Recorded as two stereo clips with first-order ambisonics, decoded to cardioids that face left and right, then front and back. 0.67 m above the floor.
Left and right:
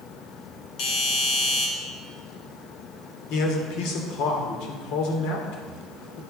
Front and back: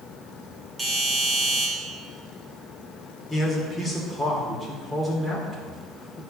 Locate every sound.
0.8 s a doorbell: 105° left, 2.5 m
3.3 s a man speaking: 90° left, 2 m